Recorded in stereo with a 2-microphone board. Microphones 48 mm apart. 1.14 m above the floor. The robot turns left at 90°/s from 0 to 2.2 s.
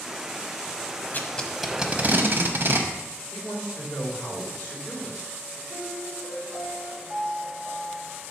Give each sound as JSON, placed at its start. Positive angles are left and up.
{"t": 1.1, "sound": "tape being pulled", "side_deg": 35, "distance_m": 0.7}
{"t": 3.3, "sound": "a man speaking", "side_deg": 75, "distance_m": 2.5}
{"t": 5.7, "sound": "a piano", "side_deg": 55, "distance_m": 2.5}